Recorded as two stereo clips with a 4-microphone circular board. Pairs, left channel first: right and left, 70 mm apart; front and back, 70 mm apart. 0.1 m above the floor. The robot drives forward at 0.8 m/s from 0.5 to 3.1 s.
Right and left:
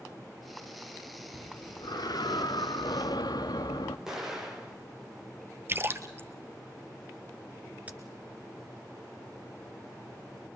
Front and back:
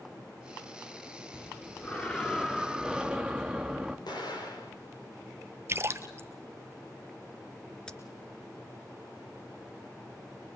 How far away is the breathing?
About 2 m.